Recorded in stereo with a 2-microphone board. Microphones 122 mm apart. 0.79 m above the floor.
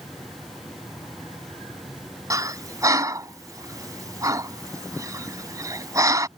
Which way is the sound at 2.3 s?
30° right (ahead or behind).